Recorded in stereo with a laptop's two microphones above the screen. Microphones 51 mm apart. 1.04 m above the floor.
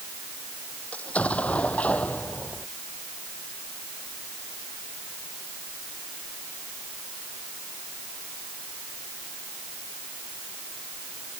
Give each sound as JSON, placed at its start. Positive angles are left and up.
{"t": 0.9, "sound": "an explosion", "side_deg": 25}